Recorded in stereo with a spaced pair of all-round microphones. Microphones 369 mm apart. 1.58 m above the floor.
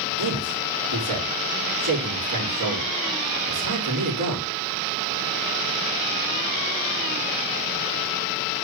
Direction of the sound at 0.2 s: 60° right (ahead or behind).